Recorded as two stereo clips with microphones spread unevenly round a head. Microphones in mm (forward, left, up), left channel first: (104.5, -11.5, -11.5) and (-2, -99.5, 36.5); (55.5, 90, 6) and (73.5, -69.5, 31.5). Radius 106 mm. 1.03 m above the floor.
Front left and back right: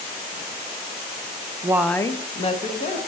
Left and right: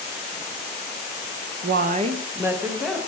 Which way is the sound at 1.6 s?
75° right.